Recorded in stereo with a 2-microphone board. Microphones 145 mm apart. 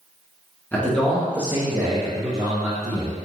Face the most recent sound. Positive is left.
turn(degrees=-35)  # may be behind; listen again after turning